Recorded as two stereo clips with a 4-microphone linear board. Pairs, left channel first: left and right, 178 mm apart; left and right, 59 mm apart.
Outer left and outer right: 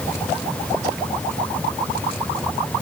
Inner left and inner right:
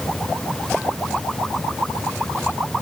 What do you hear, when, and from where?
Only background noise.